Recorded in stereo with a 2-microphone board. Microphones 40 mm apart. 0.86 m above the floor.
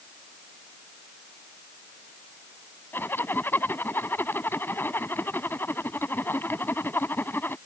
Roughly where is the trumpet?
No trumpet in this recording.